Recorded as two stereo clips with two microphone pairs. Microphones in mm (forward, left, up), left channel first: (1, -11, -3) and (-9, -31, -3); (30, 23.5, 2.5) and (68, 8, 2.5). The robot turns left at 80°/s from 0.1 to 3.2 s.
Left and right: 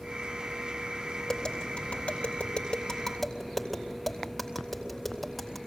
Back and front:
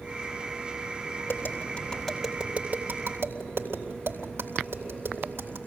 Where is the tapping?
135° left, 3 m; by 5.6 s 15° right, 3 m.